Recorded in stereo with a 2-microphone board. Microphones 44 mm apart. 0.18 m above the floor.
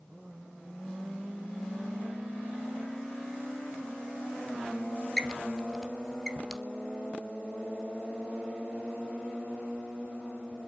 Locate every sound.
5.2 s a squeak: 10° left (ahead or behind), 1.8 m